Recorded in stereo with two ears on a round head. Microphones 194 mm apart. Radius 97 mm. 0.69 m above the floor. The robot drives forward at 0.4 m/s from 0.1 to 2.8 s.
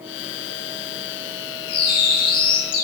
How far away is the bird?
About 1.3 m.